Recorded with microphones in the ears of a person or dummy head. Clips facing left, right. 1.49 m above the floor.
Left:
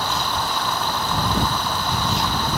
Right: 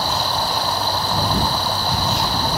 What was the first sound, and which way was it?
Running water, 35° right (ahead or behind).